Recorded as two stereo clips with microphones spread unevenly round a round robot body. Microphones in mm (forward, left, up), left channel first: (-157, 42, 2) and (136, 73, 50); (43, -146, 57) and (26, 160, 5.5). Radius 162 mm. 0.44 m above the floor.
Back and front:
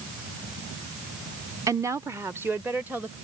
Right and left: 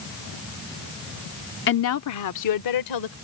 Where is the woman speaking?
80° right; by 3.1 s 85° right.